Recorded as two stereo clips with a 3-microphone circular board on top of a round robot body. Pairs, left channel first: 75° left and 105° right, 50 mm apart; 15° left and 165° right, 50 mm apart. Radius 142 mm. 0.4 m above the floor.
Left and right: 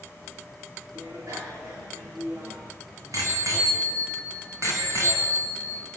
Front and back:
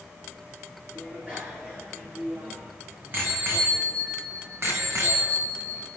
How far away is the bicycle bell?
About 7 m.